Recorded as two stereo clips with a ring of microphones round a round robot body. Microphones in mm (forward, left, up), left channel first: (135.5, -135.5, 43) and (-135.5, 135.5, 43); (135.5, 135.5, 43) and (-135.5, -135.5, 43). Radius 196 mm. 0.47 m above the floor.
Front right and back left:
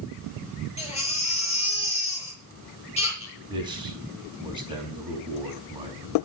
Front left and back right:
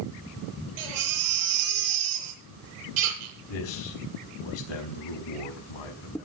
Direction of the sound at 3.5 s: 55° left.